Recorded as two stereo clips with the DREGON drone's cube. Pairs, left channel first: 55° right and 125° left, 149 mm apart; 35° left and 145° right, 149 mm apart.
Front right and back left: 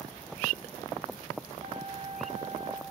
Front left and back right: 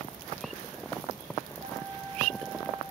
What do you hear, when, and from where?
1.6 s a flute: 165° left, 4.5 m